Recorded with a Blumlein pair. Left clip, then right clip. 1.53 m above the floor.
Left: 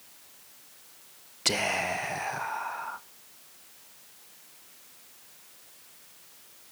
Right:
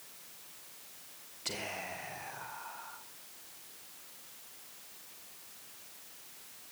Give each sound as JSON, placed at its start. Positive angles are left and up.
{"t": 1.4, "sound": "whispering", "azimuth_deg": 55, "distance_m": 1.3}